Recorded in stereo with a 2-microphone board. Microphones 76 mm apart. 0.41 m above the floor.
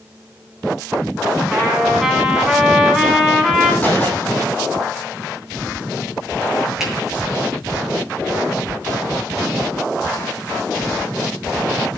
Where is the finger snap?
5° right (ahead or behind), 8 m.